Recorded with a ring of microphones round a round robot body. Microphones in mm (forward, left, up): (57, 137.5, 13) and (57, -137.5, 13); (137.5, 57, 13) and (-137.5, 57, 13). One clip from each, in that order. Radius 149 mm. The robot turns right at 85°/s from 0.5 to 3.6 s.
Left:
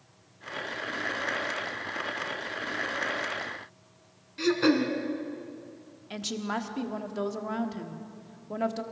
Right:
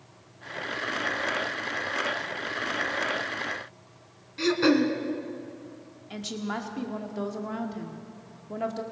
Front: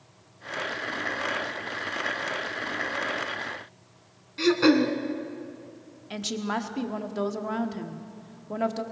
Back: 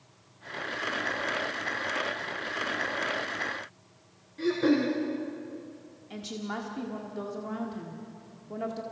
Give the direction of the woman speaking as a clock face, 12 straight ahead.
11 o'clock.